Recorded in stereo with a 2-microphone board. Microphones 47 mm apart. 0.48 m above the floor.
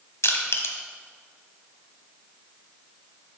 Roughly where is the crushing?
Left.